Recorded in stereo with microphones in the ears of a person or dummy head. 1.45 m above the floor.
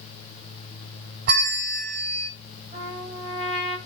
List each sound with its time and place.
1.3 s a bell: 45° right (ahead or behind), 0.9 m
2.7 s a trumpet: 30° right (ahead or behind), 5 m